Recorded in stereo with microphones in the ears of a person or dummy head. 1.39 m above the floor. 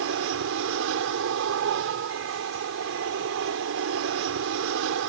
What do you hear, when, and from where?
0.0 s an aircraft: 70° right (ahead or behind)